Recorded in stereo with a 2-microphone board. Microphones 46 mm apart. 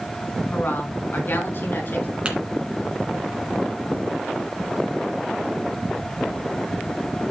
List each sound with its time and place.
0.5 s a woman speaking: 45° left (ahead or behind), 2.5 m; by 2.1 s 55° left (ahead or behind), 4.5 m
2.2 s tapping: 25° right (ahead or behind), 2.5 m